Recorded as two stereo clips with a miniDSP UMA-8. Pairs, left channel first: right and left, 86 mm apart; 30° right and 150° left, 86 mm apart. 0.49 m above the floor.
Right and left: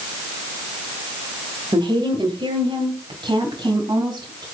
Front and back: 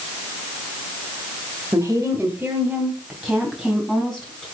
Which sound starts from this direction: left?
A woman speaking, at 1.7 s.